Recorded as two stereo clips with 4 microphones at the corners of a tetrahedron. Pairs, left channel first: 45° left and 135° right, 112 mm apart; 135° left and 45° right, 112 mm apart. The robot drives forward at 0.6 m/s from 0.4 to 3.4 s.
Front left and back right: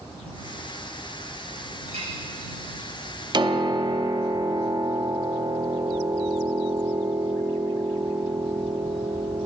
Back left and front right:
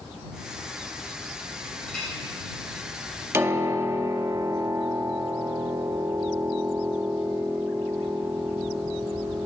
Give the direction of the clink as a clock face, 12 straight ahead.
5 o'clock.